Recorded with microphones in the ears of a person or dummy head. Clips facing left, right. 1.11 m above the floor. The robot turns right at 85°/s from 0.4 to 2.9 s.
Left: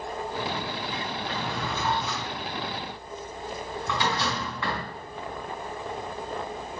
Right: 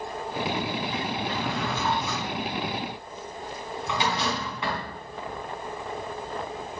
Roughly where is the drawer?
Right.